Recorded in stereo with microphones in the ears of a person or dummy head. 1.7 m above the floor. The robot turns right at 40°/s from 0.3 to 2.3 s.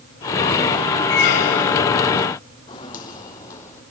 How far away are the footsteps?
About 4 m.